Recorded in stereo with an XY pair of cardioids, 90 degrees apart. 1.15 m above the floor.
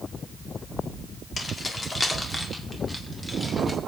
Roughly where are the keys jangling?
Ahead left.